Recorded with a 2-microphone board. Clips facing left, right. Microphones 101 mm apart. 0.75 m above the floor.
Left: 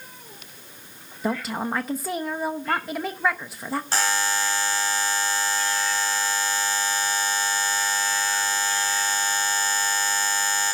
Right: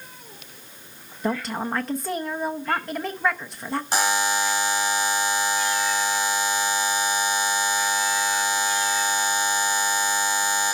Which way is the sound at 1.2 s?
5° left (ahead or behind).